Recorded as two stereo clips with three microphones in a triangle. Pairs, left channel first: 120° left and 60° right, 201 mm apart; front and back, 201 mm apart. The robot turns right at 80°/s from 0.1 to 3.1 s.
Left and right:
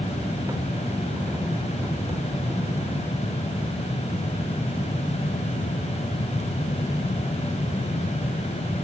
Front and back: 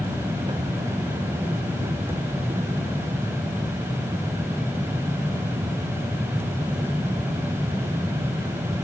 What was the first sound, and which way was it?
Only background noise.